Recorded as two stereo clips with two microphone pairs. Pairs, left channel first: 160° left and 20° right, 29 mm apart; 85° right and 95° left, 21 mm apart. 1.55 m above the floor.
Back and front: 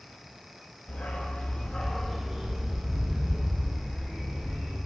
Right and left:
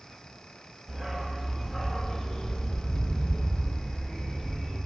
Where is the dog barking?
165° left, 1.6 m; by 4.8 s 45° right, 3 m.